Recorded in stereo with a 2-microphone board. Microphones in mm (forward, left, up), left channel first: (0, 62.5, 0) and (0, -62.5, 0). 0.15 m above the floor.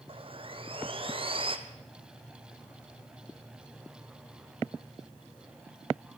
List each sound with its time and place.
0.1 s sawing: 45° right (ahead or behind), 1.4 m